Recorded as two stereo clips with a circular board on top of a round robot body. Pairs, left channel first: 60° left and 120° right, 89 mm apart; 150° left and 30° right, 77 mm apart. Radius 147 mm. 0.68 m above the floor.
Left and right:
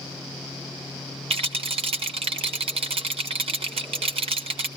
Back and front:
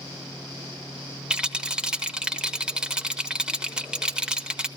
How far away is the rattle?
About 0.8 m.